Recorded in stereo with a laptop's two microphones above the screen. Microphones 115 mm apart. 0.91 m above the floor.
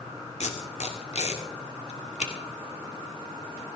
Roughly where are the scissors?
No scissors in this recording.